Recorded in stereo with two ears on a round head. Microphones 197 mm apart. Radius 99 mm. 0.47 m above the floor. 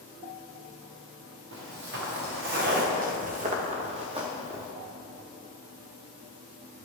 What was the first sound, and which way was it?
Footsteps, 65° right (ahead or behind).